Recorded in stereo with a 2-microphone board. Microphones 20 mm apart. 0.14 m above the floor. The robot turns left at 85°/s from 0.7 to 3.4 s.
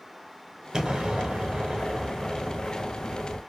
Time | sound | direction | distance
0.7 | an explosion | 40° right | 0.8 m